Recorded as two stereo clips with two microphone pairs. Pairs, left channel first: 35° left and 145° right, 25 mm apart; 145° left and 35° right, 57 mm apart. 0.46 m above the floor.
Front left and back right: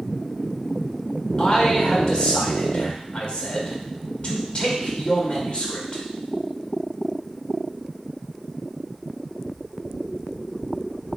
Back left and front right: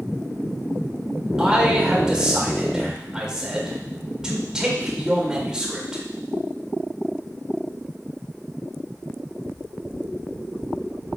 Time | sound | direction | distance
1.4 | a man speaking | 40° left | 1.8 m